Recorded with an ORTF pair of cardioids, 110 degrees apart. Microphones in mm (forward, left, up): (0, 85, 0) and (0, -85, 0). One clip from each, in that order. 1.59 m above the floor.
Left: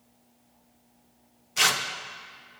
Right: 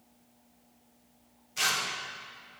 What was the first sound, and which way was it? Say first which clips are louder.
Tearing paper: left 5 dB; 35° left.